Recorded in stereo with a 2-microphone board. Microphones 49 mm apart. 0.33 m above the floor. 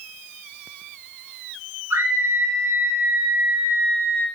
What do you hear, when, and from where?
1.9 s a scream: 50° right (ahead or behind), 7.5 m